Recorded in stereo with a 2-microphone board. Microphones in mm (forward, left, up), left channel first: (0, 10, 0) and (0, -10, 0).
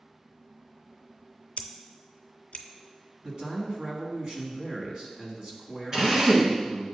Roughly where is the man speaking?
Right.